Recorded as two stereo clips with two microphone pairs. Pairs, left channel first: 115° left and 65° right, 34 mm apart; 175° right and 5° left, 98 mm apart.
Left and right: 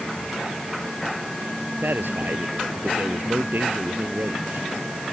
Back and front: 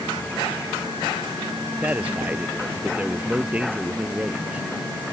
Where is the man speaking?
70° right.